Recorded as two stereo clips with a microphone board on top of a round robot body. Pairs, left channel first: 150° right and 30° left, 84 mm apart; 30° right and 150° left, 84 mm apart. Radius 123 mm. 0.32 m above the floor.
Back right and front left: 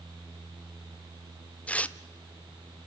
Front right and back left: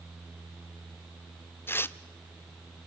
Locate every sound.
1.7 s tearing paper: 80° right, 0.7 m